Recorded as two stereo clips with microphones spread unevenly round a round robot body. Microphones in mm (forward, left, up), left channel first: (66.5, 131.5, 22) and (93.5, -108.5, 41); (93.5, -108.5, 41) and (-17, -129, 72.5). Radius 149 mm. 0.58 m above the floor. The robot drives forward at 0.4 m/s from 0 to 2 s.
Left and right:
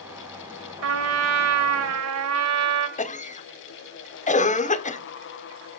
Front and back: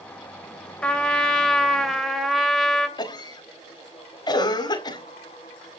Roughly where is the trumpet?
Ahead right.